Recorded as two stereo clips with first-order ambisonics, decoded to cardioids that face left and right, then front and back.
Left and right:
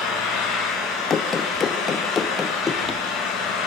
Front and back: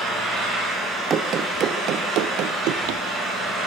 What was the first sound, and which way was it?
An engine running, 115° left.